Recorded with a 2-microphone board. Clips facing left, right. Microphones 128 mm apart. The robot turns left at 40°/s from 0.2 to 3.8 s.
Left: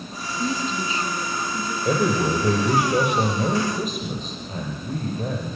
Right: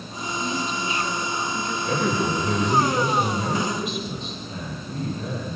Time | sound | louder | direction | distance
0.4 | a woman speaking | left 3 dB | 55° left | 2.5 m
1.9 | a man speaking | left 3 dB | 120° left | 7 m